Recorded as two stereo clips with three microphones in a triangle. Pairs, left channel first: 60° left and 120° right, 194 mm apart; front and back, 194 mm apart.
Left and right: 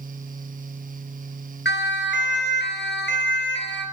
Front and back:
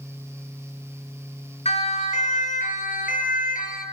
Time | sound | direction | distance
1.6 | a siren | 55° left | 2.5 m